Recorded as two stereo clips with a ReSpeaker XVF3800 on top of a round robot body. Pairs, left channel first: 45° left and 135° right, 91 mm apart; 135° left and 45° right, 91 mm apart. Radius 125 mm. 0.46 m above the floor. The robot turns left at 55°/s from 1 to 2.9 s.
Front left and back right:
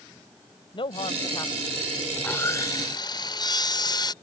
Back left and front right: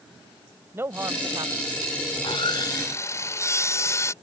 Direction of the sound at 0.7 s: 20° left.